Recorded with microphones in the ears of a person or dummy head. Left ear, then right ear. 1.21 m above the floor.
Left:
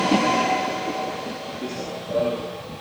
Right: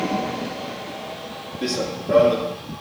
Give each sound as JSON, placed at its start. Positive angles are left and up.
{"t": 1.6, "sound": "running footsteps", "side_deg": -60, "distance_m": 2.5}